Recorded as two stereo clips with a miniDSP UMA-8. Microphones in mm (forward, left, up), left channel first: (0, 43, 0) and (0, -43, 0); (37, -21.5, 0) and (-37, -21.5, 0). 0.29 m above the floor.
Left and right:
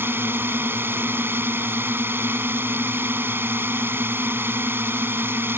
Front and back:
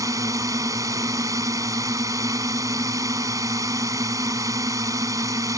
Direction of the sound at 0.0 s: 150° right.